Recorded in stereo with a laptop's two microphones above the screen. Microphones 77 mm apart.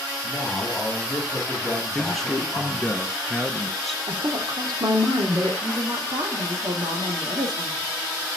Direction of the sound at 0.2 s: 5° left (ahead or behind).